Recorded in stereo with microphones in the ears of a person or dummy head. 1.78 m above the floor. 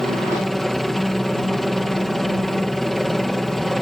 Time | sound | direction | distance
0.0 | a helicopter | centre (ahead or behind) | ?